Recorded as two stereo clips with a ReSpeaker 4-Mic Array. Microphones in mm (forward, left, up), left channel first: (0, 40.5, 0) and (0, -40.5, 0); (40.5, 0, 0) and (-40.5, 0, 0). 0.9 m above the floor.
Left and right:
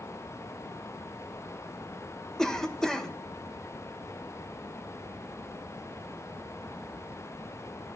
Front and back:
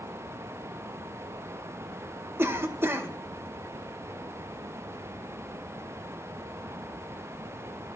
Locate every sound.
2.4 s a cough: 165° left, 0.9 m